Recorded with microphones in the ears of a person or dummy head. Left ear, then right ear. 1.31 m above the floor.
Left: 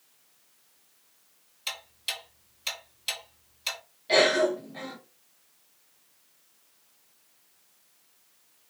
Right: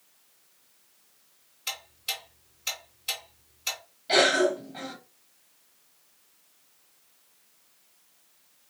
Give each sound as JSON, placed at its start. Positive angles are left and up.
{"t": 1.7, "sound": "ticking", "side_deg": 40, "distance_m": 3.0}
{"t": 4.1, "sound": "a cough", "side_deg": 0, "distance_m": 1.9}